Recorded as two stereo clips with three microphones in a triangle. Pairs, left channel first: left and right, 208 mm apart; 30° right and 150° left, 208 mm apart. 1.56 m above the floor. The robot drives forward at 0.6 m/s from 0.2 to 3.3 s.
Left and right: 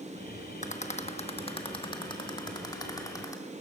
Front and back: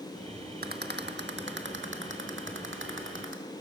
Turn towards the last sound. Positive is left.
turn(degrees=160)